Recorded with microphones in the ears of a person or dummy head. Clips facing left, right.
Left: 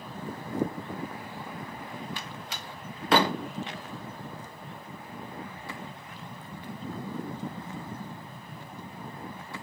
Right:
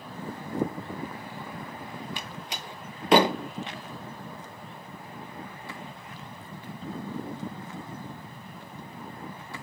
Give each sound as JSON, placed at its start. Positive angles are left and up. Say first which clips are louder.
{"t": 2.2, "sound": "a door slam", "louder": "right 1 dB", "side_deg": -15, "distance_m": 0.6}